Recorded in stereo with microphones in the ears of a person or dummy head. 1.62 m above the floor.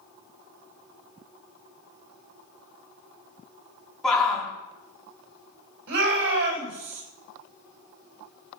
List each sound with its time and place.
4.0 s a shout: 5° left (ahead or behind), 5 m
5.9 s a shout: 75° right (ahead or behind), 7.5 m